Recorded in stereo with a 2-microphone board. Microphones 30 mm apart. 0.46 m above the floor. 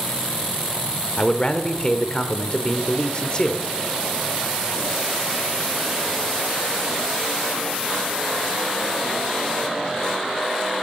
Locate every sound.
1.2 s a man speaking: 35° left (ahead or behind), 1.2 m